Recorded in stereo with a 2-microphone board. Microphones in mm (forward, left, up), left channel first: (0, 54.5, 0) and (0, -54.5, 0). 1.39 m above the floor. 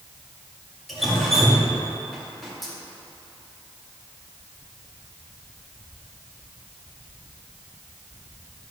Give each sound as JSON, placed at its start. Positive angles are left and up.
{"t": 0.9, "sound": "dripping", "side_deg": 0, "distance_m": 1.9}